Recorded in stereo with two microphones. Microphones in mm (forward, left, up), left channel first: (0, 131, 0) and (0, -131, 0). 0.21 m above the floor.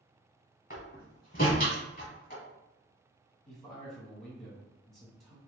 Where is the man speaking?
Centre (ahead or behind), 1.2 m.